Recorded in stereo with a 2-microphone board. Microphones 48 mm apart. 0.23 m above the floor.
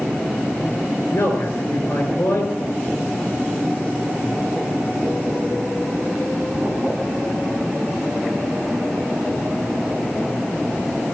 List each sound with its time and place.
1.1 s a man speaking: 65° left (ahead or behind), 3.5 m